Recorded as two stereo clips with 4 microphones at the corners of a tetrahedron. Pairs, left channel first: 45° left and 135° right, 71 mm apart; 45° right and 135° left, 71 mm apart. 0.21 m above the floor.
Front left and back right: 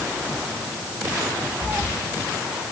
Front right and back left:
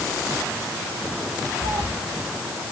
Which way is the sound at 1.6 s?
165° left.